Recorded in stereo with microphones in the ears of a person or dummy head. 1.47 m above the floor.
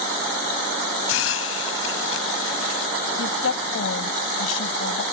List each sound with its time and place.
1.1 s a hiss: 85° left
3.2 s a woman speaking: 85° left